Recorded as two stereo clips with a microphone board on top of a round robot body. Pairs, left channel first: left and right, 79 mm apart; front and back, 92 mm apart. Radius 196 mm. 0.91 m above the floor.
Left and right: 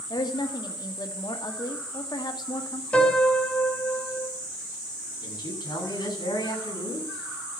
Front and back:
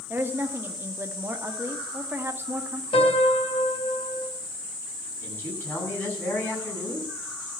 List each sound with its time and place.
0.1 s a woman speaking: 115° left, 1.8 m
2.9 s a piano: 15° left, 3 m
5.2 s a man speaking: 75° left, 8.5 m